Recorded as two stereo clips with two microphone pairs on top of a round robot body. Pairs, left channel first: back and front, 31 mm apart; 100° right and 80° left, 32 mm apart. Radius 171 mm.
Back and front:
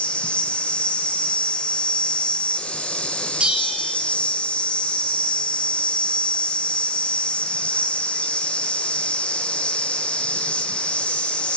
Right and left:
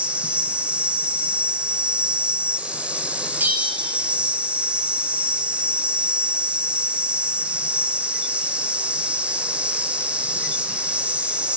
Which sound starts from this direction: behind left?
An insect, at 0.0 s.